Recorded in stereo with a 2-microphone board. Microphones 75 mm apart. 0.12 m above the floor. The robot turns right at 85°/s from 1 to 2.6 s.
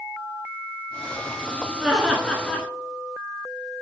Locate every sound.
1.8 s laughter: 5° right (ahead or behind), 1.2 m; by 2.7 s 15° left (ahead or behind), 1.2 m